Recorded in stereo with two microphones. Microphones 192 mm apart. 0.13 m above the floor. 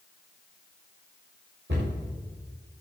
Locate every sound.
1.7 s a cupboard door: 70° right (ahead or behind), 6 m